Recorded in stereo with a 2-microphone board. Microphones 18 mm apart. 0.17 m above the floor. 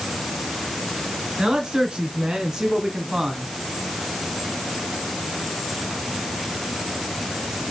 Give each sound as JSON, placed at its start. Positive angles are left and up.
{"t": 1.4, "sound": "a man speaking", "side_deg": -50, "distance_m": 3.0}